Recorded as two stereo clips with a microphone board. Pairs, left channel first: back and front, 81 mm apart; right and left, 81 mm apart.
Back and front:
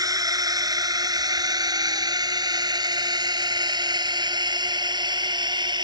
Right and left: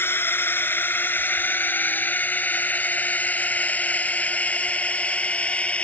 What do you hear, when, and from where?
0.0 s a drone: 30° right; by 5.8 s 15° right